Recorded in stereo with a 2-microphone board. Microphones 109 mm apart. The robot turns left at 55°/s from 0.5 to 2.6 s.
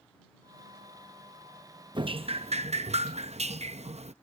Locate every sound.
1.9 s dripping: 45° right; by 4.1 s 80° right